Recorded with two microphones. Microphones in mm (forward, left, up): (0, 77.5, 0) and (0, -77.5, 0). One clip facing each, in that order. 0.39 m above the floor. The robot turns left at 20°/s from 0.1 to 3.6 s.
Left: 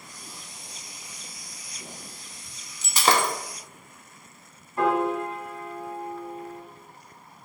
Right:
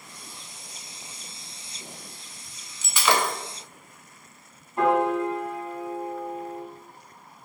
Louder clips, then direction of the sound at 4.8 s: Right 2 dB; 20° right (ahead or behind).